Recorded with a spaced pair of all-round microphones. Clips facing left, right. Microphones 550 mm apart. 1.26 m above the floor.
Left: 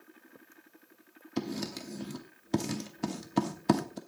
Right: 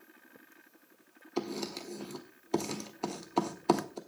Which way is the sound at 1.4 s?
40° left (ahead or behind).